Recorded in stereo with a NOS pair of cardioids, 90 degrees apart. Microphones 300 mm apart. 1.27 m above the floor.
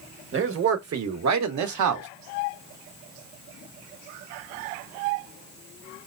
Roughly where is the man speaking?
Ahead right.